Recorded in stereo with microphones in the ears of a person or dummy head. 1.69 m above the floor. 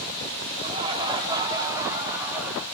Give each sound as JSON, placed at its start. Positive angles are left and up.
{"t": 0.6, "sound": "laughter", "side_deg": -25, "distance_m": 4.0}